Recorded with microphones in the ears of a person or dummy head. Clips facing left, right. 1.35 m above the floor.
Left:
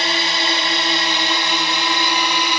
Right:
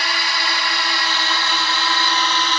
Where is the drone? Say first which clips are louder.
Left 4 dB; 25° left (ahead or behind); by 2.6 s 15° left (ahead or behind).